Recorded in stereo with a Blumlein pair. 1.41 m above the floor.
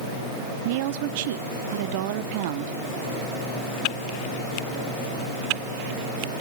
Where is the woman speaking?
50° right, 1.3 m.